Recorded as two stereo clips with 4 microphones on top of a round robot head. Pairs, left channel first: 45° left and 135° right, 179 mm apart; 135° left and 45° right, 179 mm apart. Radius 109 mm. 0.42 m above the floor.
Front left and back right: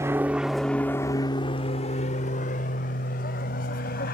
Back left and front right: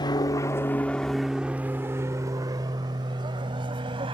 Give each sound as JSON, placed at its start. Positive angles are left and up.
{"t": 0.0, "sound": "an aircraft", "azimuth_deg": 170}